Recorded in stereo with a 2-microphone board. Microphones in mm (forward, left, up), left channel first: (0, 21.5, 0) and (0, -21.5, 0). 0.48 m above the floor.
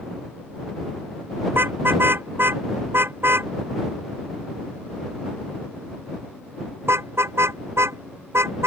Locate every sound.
1.5 s a car horn: 55° right (ahead or behind); by 8.7 s 75° right (ahead or behind)